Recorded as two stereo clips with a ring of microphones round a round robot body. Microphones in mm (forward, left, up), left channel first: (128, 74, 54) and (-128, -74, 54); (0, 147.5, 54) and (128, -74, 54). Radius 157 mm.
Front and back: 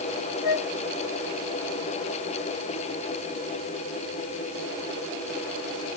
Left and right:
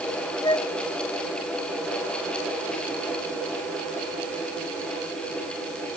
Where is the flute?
45° left.